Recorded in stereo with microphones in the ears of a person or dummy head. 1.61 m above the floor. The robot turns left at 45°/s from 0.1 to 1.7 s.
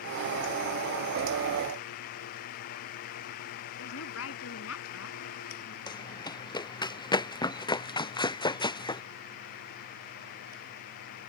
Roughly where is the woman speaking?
Left.